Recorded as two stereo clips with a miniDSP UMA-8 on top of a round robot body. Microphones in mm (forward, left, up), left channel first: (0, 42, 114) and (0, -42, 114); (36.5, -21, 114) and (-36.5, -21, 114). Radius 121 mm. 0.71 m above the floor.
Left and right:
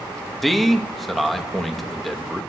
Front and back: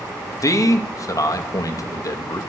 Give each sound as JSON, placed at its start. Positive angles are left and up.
{"t": 0.4, "sound": "a man speaking", "azimuth_deg": 0, "distance_m": 1.0}